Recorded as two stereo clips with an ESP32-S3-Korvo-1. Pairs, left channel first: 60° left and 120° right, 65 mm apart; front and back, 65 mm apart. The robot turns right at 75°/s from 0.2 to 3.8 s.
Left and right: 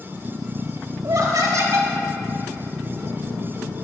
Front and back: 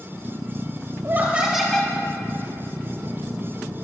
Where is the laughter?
135° right, 1.1 m; by 1.9 s 65° right, 1.1 m.